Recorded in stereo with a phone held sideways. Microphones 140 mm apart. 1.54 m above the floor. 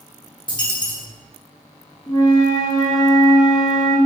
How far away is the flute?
About 1.0 m.